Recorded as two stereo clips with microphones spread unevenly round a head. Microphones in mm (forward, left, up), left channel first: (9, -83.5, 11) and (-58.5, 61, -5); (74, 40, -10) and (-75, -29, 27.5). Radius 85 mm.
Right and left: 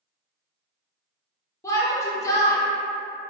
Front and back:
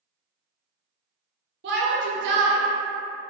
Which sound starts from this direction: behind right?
A shout, at 1.6 s.